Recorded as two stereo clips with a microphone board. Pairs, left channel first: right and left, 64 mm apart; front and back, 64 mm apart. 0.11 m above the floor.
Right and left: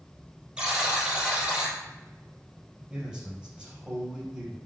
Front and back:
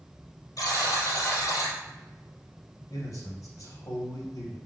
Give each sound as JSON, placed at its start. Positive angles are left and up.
{"t": 0.6, "sound": "a buzzer", "azimuth_deg": 15, "distance_m": 3.0}
{"t": 2.9, "sound": "a man speaking", "azimuth_deg": 15, "distance_m": 3.5}